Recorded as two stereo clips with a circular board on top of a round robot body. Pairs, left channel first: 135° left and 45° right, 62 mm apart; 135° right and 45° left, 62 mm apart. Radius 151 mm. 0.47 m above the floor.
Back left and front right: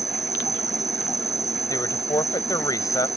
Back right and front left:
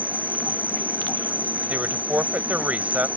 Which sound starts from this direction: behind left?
A woman speaking, at 1.7 s.